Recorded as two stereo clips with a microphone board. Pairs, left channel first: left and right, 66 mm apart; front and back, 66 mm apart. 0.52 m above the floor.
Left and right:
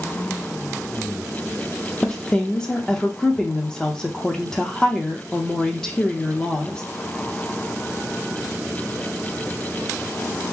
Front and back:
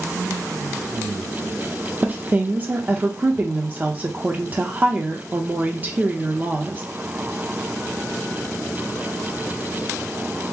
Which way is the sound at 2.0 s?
155° left.